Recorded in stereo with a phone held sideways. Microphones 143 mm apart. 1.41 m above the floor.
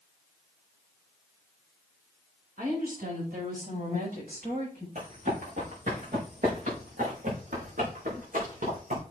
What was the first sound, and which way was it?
A woman speaking, 80° right.